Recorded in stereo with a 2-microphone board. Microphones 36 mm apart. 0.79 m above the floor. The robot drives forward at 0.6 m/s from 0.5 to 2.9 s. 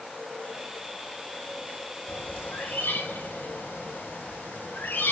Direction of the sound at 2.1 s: 80° left.